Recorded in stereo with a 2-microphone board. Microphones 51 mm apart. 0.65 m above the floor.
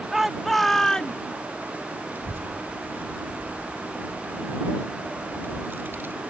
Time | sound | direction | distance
0.1 | a shout | 10° right (ahead or behind) | ?
2.1 | a child speaking | 45° right (ahead or behind) | ?